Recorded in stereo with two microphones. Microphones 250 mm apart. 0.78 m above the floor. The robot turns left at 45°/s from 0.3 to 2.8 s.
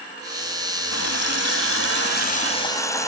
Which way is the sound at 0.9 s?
100° left.